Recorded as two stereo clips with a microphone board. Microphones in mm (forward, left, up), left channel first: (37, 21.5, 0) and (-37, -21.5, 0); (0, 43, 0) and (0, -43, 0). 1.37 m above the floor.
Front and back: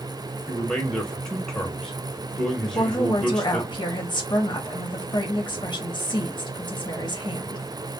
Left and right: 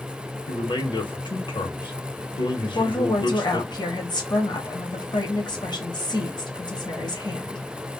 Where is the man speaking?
110° left, 0.8 m.